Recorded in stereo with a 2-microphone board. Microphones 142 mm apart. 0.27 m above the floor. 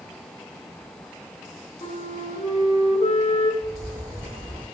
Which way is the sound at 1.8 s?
45° left (ahead or behind).